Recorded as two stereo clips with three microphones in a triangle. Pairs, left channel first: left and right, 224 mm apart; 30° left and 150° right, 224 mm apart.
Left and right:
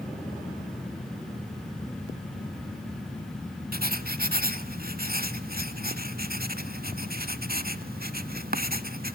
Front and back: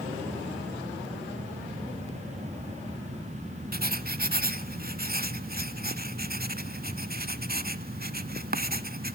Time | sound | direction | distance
3.7 | writing | 120° right | 0.8 m